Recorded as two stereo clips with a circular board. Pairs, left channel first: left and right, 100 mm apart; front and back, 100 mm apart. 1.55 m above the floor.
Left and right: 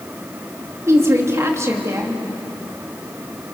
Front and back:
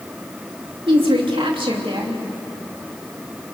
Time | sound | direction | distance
0.9 | a woman speaking | 150° right | 3 m